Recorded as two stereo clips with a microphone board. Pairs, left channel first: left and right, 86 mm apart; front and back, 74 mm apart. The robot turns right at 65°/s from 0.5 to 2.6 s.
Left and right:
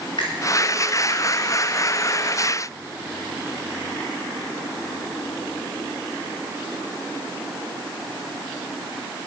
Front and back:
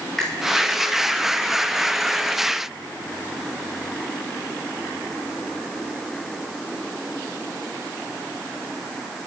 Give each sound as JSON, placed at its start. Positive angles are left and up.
{"t": 0.2, "sound": "a finger snap", "azimuth_deg": 85, "distance_m": 6.0}